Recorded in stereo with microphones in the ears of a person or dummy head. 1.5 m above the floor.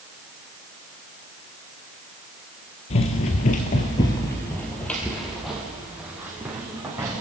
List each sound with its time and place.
2.9 s running footsteps: 30° left (ahead or behind), 1.8 m; by 7.2 s 10° right (ahead or behind), 4 m